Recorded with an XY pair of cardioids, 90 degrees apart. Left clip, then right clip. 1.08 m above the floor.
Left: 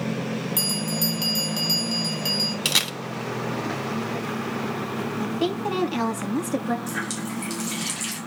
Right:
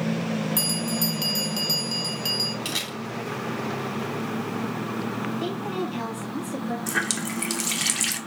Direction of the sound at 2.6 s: 70° left.